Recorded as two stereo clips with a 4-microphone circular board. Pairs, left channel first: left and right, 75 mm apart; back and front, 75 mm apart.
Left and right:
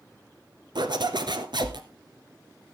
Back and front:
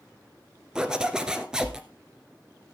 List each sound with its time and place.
0.8 s a zipper: 80° right, 1.4 m